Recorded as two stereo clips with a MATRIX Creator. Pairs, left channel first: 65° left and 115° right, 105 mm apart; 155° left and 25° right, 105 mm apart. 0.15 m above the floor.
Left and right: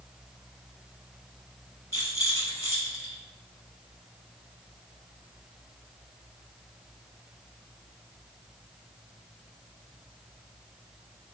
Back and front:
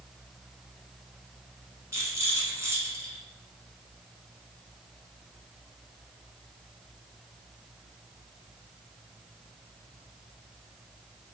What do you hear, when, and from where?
1.9 s a rattle: 20° left, 0.9 m